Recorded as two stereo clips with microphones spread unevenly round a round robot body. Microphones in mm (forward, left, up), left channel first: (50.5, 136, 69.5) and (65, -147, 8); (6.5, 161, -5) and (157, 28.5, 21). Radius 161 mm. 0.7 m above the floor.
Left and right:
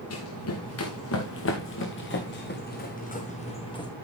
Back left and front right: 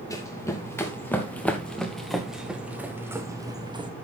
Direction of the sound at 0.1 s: 65° left.